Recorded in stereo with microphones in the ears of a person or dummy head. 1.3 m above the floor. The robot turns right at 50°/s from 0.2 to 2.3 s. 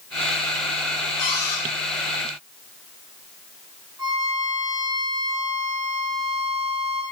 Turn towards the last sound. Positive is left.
turn(degrees=-20)  # may be behind; listen again after turning